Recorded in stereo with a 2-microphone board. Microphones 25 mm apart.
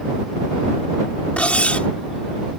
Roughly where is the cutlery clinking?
Left.